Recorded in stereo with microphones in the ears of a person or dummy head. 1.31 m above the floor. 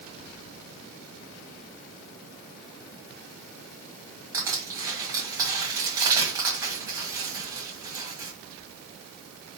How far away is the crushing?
About 2.5 m.